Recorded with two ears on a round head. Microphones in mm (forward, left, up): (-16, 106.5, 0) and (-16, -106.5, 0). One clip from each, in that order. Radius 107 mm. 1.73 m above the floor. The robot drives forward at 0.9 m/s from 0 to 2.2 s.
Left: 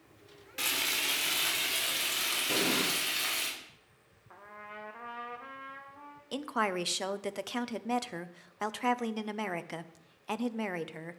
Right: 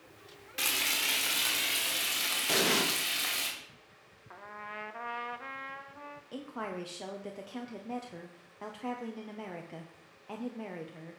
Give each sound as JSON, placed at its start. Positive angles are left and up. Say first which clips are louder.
{"t": 0.6, "sound": "frying", "louder": "right 1 dB", "side_deg": -15, "distance_m": 1.7}
{"t": 2.5, "sound": "an explosion", "louder": "right 3 dB", "side_deg": -45, "distance_m": 1.3}
{"t": 4.3, "sound": "a trumpet", "louder": "right 3 dB", "side_deg": -20, "distance_m": 0.6}
{"t": 6.3, "sound": "a woman speaking", "louder": "left 8 dB", "side_deg": 60, "distance_m": 0.7}